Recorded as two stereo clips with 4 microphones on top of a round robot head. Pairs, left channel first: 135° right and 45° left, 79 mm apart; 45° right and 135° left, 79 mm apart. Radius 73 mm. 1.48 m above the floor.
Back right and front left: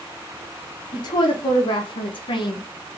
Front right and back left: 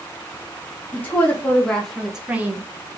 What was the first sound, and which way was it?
A woman speaking, 110° right.